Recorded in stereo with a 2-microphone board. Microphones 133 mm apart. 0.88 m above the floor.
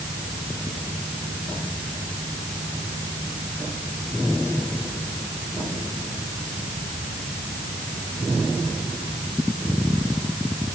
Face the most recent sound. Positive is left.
No sound to turn to.